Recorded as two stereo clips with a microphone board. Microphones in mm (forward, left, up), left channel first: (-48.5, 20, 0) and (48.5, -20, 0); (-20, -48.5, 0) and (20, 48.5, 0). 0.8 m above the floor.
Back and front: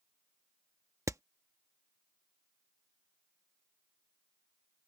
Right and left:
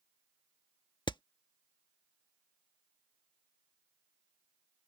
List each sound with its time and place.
1.1 s hammering: 80° right